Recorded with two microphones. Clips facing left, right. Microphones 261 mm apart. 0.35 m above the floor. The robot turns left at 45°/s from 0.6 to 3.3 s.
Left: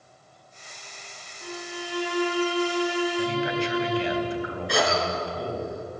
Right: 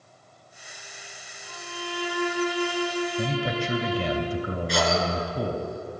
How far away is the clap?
No clap in this recording.